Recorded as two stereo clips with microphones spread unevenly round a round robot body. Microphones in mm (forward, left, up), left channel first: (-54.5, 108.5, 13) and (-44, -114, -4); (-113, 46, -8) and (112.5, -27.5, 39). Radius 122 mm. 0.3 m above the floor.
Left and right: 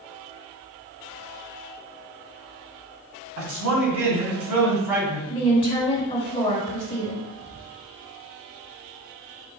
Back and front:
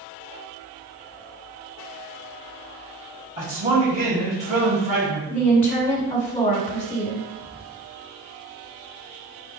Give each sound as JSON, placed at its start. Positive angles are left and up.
{"t": 3.4, "sound": "a man speaking", "azimuth_deg": -80, "distance_m": 1.9}
{"t": 5.3, "sound": "a woman speaking", "azimuth_deg": 135, "distance_m": 1.4}
{"t": 7.4, "sound": "whispering", "azimuth_deg": -110, "distance_m": 1.3}